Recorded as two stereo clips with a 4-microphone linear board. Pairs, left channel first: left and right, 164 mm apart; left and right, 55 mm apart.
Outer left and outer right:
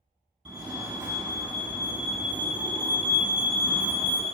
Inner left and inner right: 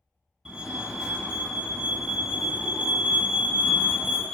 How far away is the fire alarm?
About 1.9 m.